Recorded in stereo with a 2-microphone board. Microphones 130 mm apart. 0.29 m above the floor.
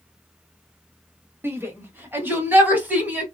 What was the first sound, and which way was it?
A shout, 20° right (ahead or behind).